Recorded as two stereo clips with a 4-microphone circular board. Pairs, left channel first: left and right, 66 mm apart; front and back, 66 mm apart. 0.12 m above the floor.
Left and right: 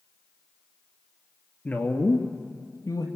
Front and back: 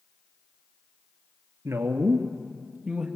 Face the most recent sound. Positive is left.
turn(degrees=100)